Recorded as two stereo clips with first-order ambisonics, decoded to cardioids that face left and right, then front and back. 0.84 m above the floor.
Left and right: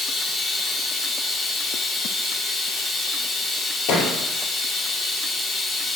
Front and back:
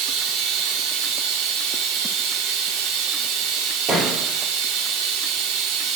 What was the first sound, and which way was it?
Running water, 165° left.